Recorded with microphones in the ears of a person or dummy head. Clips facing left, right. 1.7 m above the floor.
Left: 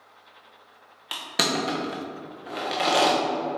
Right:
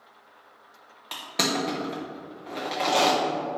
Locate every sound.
1.1 s crushing: centre (ahead or behind), 0.6 m